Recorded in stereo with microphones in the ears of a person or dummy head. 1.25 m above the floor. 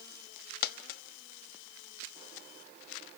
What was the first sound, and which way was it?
A dropped coin, 60° left (ahead or behind).